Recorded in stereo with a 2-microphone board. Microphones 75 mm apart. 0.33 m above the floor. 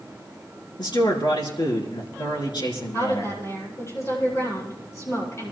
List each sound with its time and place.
0.8 s a man speaking: 75° left (ahead or behind), 4.5 m
2.9 s a woman speaking: 40° left (ahead or behind), 8.5 m